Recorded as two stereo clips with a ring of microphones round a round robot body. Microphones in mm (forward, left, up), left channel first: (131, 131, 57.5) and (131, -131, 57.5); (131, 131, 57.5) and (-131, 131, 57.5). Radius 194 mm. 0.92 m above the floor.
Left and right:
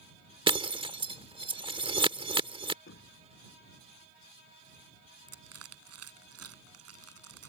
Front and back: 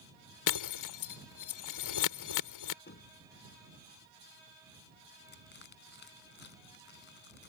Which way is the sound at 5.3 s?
65° right.